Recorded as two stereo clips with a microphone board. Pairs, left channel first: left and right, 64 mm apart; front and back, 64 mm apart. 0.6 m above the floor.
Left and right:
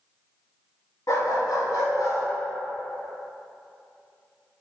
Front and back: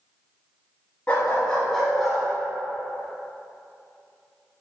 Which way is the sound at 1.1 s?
65° left.